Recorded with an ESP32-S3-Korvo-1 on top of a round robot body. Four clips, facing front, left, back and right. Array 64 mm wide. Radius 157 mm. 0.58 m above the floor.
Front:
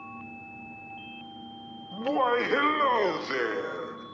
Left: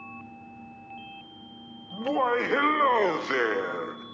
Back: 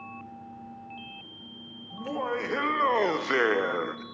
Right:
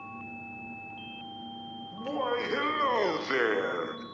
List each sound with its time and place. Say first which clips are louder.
1.9 s laughter: left 6 dB, front 6 dB; 45° left, 1.2 m; by 4.0 s 165° right, 1.1 m